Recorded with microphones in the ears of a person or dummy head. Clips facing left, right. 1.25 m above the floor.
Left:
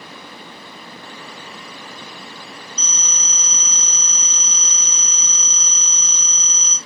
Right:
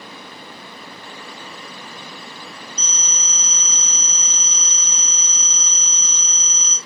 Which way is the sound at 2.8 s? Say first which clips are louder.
Even; 70° left (ahead or behind).